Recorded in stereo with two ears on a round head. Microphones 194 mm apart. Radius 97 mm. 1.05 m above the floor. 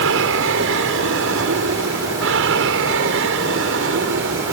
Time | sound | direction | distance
0.0 | an aircraft | 60° right (ahead or behind) | ?